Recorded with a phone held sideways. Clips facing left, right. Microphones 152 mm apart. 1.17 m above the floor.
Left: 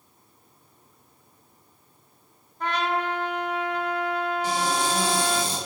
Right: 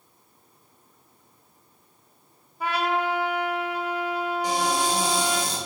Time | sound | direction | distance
2.6 | a trumpet | 10° right (ahead or behind) | 0.6 m
4.4 | a cupboard door | 15° right (ahead or behind) | 1.5 m